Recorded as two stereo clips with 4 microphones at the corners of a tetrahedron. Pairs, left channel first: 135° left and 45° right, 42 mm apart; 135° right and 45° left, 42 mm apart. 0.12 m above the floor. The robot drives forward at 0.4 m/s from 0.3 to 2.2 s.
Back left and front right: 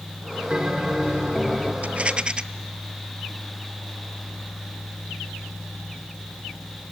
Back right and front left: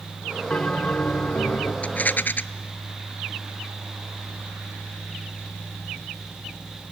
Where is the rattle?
90° right, 0.5 m; by 2.4 s 110° right, 0.5 m.